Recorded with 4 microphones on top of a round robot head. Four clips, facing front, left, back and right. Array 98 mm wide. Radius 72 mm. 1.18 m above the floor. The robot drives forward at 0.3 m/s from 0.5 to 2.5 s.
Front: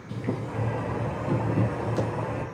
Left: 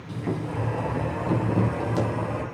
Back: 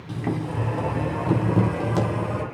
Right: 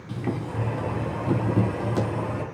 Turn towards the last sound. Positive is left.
turn(degrees=180)